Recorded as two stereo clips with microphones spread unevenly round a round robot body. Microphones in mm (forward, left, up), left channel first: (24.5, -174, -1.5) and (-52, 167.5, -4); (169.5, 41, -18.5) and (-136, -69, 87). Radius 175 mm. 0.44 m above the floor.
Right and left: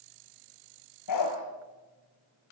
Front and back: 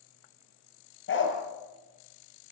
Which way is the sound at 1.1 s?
35° right.